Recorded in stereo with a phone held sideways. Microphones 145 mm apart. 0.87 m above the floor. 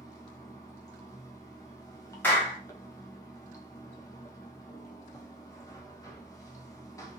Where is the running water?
25° left (ahead or behind), 0.8 m.